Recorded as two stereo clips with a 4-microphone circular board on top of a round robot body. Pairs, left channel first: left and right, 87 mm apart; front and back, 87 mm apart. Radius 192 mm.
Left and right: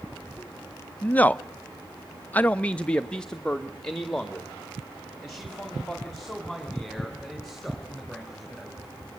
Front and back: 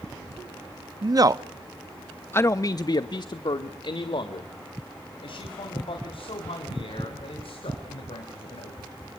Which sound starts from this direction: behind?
A man speaking, at 1.0 s.